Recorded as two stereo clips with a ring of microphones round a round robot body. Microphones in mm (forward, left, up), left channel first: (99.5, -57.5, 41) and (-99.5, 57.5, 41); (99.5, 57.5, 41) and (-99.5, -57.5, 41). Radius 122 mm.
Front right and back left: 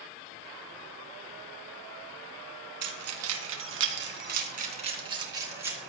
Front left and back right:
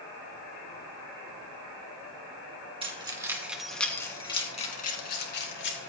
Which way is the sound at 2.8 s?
145° left.